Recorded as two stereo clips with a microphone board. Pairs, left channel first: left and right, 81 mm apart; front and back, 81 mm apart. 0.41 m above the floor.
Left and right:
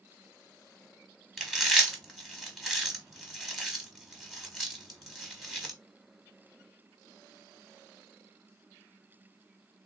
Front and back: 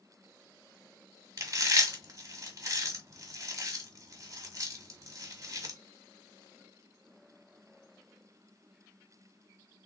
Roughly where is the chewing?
Behind.